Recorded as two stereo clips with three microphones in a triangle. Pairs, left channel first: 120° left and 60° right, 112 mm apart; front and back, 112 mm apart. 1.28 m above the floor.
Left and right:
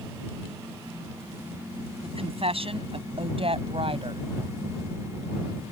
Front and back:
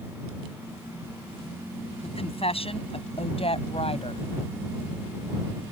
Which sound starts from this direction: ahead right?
A woman speaking, at 2.0 s.